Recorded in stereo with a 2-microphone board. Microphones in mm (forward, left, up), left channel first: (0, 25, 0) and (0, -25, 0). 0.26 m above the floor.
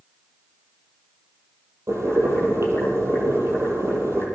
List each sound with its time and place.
1.9 s boiling: 75° right (ahead or behind), 6.5 m